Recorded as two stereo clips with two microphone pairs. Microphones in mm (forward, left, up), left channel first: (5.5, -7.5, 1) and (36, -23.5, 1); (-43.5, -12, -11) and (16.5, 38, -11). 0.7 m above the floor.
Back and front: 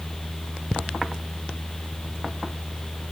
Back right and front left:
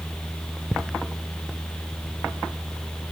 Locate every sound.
Only background noise.